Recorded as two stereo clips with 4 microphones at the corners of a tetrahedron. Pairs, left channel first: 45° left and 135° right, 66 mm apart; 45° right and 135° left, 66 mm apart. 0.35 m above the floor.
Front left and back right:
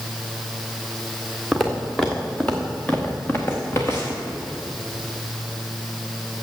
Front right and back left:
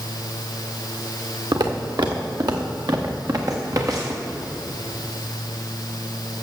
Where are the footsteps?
135° left, 1.7 m; by 4.2 s 90° left, 2 m.